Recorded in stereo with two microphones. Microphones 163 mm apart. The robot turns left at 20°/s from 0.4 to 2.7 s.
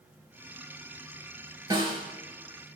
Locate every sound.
1.7 s a snare drum: 25° right (ahead or behind), 2.5 m; by 2.0 s 30° right (ahead or behind), 2.5 m